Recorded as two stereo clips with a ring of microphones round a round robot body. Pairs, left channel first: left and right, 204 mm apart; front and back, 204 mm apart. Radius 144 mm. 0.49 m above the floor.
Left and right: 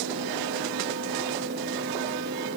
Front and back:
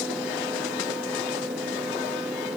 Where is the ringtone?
I don't hear a ringtone.